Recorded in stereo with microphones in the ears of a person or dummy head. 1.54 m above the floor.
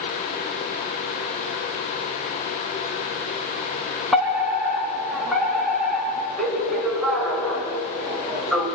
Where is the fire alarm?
Centre (ahead or behind), 5 m.